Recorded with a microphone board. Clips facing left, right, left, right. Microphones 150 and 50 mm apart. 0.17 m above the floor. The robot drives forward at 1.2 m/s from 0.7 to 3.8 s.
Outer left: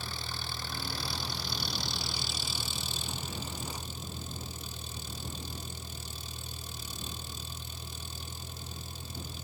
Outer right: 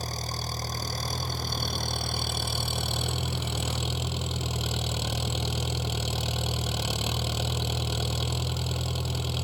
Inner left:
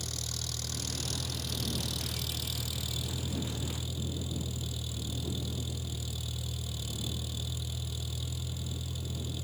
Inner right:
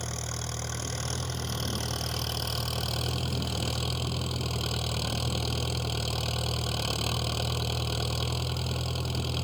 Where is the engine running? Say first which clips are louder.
Outer right 7 dB, inner right 5 dB; 40° right (ahead or behind); by 9.4 s 75° right (ahead or behind).